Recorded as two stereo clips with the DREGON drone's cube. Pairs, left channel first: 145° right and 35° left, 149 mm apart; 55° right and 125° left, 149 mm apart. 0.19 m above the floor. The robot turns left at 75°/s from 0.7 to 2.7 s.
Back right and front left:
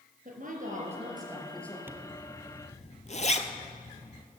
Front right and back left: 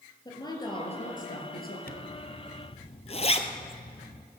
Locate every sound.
0.2 s a woman speaking: 5° left, 4 m; by 1.8 s 75° right, 4 m
1.9 s a zipper: 40° right, 1.1 m; by 4.2 s 105° right, 1.1 m